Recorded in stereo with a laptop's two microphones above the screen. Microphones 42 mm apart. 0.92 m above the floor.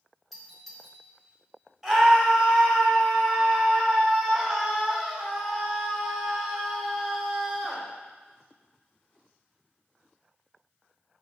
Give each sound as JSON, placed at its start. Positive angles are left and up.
{"t": 0.3, "sound": "a doorbell", "side_deg": 0, "distance_m": 4.0}
{"t": 1.8, "sound": "a scream", "side_deg": -5, "distance_m": 5.0}